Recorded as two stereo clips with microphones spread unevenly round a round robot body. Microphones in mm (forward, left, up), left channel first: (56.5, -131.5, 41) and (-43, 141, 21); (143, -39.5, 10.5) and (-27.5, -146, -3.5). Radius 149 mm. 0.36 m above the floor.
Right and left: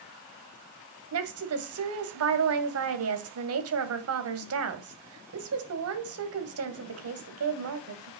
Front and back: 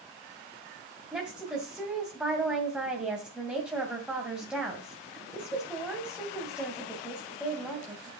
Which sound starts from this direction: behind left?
A woman speaking, at 1.1 s.